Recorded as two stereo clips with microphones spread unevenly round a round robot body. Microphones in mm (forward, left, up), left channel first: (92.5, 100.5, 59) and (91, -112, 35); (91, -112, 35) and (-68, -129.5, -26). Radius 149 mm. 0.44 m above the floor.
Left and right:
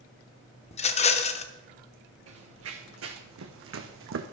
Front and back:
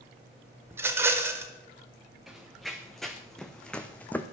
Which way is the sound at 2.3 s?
80° right.